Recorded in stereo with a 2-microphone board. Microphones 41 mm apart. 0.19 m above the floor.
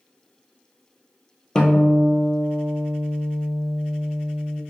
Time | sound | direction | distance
1.6 | a guitar | 20° left (ahead or behind) | 0.9 m